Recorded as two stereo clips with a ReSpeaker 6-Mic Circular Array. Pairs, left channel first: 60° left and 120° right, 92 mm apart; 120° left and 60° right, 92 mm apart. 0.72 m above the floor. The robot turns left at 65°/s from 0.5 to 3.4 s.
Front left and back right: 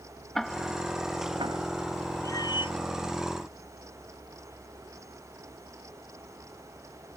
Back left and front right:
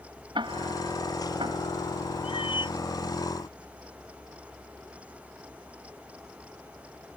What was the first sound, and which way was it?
Ticking, 30° right.